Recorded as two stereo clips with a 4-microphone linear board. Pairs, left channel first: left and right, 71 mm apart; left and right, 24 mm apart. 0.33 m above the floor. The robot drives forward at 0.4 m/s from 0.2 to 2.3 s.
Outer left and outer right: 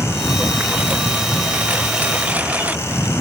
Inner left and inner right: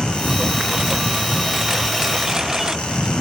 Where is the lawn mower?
20° right (ahead or behind).